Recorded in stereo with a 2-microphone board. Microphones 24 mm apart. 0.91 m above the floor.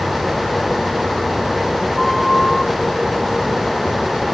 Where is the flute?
Centre (ahead or behind), 3 m.